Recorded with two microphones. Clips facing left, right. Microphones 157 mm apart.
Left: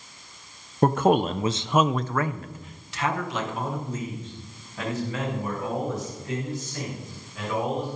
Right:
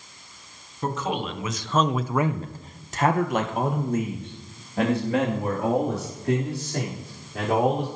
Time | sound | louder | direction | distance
0.8 | a man speaking | left 8 dB | 60° left (ahead or behind) | 0.9 m